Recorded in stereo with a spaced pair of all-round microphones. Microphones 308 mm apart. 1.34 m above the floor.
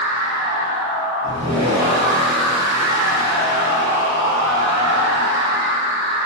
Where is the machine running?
60° right (ahead or behind), 0.8 m.